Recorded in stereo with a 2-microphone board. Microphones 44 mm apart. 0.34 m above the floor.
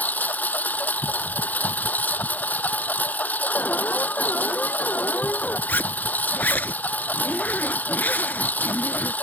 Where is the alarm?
40° left (ahead or behind).